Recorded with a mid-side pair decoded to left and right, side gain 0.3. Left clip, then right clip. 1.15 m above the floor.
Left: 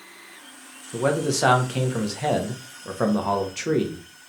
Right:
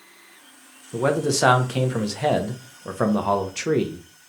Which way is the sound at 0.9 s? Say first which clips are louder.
Right 1 dB; 35° right.